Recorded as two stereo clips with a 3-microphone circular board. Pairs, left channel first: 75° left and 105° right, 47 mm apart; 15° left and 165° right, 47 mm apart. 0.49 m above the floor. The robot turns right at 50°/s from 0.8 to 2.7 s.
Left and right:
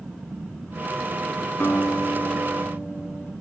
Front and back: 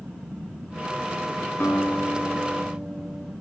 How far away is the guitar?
About 2.5 m.